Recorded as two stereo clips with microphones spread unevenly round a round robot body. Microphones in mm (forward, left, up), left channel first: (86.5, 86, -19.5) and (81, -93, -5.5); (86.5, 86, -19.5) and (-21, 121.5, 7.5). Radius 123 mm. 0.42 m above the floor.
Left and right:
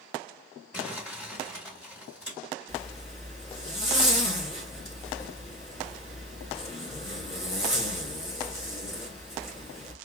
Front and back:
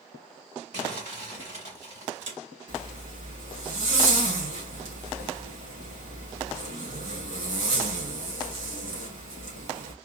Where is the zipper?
160° left, 2.5 m.